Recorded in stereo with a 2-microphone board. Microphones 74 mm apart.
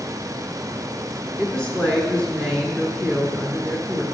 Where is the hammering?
No hammering in this recording.